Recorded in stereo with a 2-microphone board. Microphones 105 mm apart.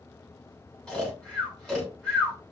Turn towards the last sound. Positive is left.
turn(degrees=5)  # may be behind; listen again after turning